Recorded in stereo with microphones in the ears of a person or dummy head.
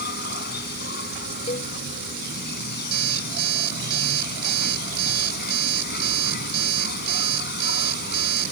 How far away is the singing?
I don't hear singing.